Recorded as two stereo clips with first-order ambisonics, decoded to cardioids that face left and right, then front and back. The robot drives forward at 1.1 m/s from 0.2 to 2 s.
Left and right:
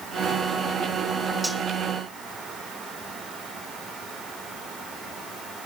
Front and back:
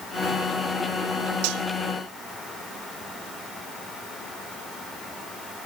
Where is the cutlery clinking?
Straight behind, 0.9 m.